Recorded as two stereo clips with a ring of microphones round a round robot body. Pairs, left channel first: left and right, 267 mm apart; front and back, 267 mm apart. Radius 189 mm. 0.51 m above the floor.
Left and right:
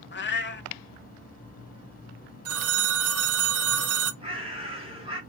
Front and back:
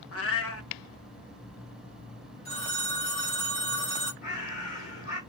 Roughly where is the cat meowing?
Ahead left.